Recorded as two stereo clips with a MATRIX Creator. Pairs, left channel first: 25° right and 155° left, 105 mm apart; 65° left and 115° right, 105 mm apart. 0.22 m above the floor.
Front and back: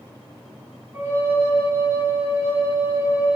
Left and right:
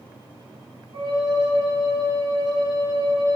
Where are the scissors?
No scissors in this recording.